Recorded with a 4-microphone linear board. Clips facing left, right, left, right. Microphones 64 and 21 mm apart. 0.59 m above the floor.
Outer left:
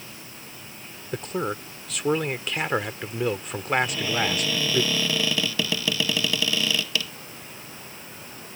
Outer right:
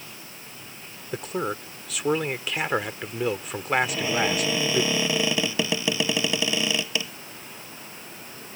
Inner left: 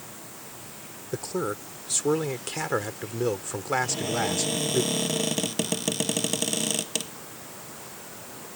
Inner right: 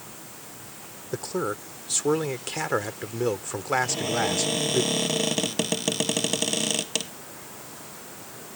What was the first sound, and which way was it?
A man speaking, centre (ahead or behind).